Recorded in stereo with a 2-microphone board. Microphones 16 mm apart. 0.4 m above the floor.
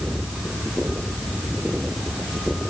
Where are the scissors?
I don't hear scissors.